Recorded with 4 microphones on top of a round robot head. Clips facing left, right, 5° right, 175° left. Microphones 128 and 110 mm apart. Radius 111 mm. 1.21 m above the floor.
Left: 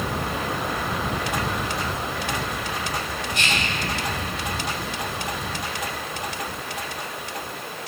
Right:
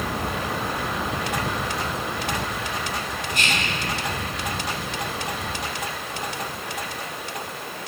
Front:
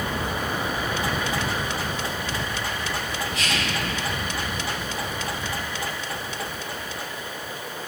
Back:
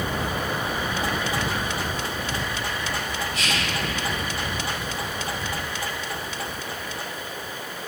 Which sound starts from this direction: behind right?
Whispering, at 3.3 s.